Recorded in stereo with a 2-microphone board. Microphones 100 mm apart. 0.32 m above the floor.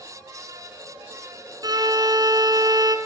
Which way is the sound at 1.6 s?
40° right (ahead or behind).